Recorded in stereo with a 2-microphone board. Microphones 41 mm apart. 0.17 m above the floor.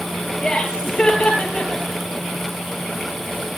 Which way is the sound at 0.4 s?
20° left (ahead or behind).